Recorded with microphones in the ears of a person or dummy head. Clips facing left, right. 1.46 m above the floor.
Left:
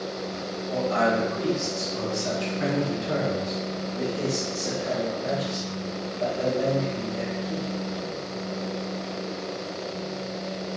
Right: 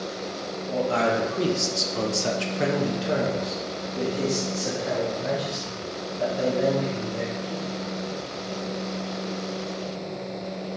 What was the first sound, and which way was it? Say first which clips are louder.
A man speaking: even; 30° right (ahead or behind).